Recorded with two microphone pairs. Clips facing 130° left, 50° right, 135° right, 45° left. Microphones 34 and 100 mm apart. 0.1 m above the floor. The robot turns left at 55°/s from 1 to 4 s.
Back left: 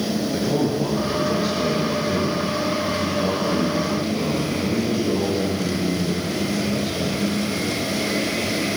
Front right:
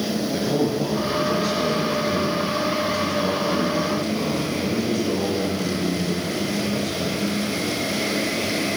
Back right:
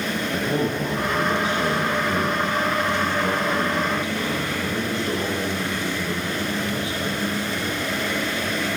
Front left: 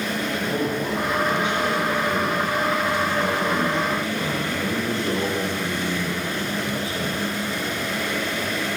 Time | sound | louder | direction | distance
0.3 | a man speaking | even, back right 2 dB | 135° right | 1.7 m